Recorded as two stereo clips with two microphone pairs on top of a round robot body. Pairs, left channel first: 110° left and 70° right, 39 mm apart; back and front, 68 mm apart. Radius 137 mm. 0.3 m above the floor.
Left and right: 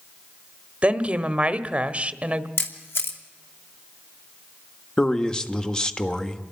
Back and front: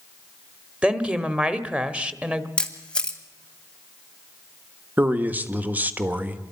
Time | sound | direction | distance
0.8 | a woman speaking | 55° right | 1.5 m
2.6 | a camera shutter | 100° left | 2.5 m
5.0 | a man speaking | 45° left | 1.4 m